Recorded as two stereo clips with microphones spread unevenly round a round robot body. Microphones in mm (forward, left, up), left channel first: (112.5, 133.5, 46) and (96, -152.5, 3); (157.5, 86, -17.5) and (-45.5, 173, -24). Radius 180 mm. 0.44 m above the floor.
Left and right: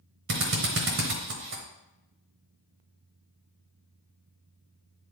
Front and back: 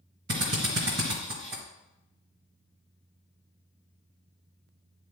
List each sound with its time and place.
0.3 s a drill: 140° right, 0.9 m